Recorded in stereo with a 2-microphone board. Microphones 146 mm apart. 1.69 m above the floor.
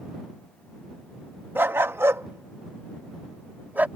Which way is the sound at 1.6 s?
15° right (ahead or behind).